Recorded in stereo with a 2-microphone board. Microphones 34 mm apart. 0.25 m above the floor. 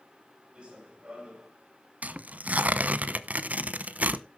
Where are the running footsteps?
30° right (ahead or behind), 5.5 m.